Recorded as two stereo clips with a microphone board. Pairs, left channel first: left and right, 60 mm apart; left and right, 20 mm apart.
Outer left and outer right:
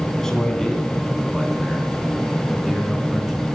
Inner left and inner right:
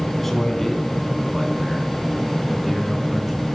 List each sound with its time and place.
0.2 s a man speaking: 10° left (ahead or behind), 3.5 m; by 3.5 s 5° right (ahead or behind), 4.5 m